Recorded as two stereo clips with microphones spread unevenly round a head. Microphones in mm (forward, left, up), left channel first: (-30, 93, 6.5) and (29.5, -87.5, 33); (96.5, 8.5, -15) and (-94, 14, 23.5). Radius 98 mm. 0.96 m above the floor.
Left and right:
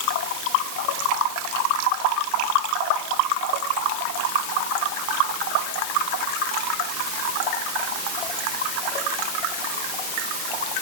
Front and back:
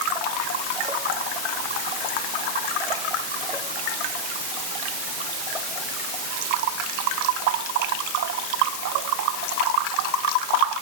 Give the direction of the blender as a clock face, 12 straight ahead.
No blender in this recording.